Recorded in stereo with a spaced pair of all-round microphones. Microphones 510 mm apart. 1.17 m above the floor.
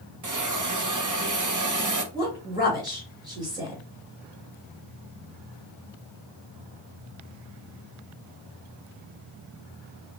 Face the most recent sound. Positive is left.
turn(degrees=-10)  # may be behind; listen again after turning